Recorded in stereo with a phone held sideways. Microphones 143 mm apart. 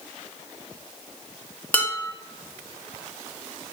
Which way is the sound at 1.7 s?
10° left (ahead or behind).